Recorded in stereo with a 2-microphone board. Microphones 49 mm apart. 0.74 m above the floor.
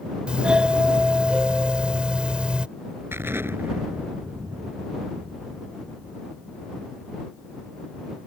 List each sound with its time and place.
0.3 s a doorbell: 20° right (ahead or behind)
3.1 s an explosion: 55° right (ahead or behind)